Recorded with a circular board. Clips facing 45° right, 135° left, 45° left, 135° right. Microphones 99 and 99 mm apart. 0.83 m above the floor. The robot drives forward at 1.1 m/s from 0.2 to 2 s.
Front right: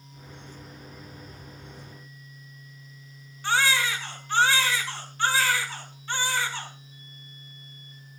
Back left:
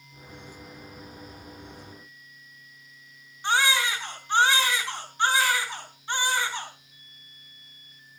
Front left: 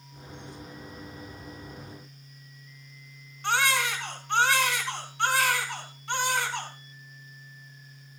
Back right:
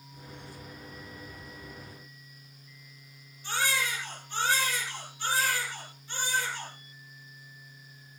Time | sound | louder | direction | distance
3.4 | a baby crying | even, front left 5 dB | 65° left | 4 m